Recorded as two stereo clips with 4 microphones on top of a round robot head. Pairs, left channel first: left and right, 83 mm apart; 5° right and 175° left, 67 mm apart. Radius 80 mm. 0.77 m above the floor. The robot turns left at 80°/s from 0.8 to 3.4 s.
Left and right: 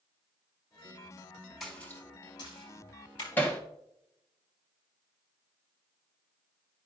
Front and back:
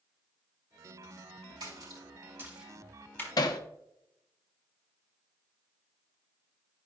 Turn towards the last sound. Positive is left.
turn(degrees=15)